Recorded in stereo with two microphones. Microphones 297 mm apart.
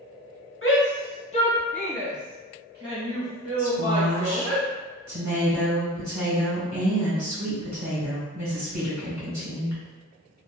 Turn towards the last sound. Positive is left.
turn(degrees=-70)  # may be behind; listen again after turning